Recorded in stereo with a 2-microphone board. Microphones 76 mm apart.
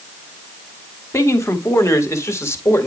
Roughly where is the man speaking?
Left.